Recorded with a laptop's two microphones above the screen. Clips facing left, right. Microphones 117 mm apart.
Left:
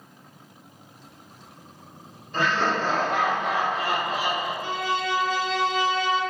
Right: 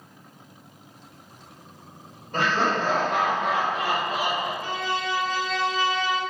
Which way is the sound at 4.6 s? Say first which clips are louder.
Left 1 dB; 30° left (ahead or behind).